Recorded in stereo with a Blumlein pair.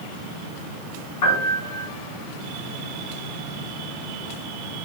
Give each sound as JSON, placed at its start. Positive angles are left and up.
{"t": 1.2, "sound": "a piano", "azimuth_deg": 50, "distance_m": 1.5}